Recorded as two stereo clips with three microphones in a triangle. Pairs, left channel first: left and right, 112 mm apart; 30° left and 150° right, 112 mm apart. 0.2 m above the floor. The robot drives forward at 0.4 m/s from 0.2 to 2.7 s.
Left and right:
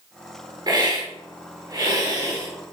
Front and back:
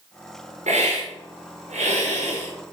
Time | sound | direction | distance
0.7 | a hiss | 145° right | 4.5 m